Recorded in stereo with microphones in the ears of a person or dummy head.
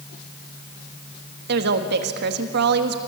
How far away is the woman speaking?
About 1.5 m.